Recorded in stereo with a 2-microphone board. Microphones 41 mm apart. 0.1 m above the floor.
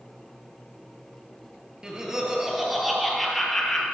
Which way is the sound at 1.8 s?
20° right (ahead or behind).